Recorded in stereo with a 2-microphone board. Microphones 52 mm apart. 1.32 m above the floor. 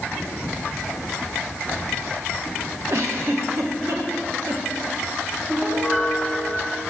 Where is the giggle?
60° right (ahead or behind), 0.8 m.